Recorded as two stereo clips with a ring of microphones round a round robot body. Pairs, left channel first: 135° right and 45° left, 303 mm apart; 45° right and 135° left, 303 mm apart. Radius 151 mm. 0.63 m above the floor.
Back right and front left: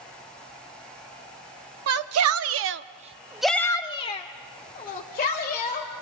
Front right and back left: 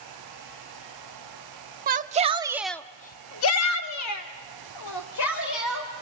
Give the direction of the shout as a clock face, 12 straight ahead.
9 o'clock.